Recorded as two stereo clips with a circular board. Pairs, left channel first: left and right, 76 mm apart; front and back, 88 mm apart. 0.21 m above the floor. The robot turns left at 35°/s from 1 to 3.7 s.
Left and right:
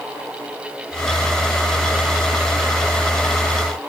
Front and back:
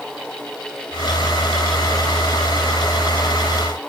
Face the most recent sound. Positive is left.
No sound to turn to.